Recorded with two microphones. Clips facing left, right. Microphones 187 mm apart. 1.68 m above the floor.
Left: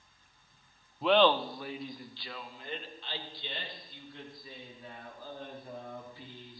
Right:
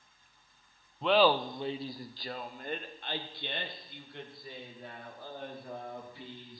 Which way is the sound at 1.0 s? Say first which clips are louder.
Left 1 dB; 5° left (ahead or behind).